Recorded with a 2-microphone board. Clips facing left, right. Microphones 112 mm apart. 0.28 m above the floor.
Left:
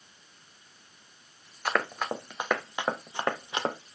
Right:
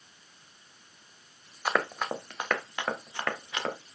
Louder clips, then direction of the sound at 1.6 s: Even; 10° right (ahead or behind).